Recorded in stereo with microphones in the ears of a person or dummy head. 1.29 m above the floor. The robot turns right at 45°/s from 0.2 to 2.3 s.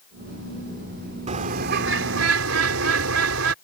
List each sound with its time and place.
1.3 s a bird: 145° right; by 3.5 s 95° right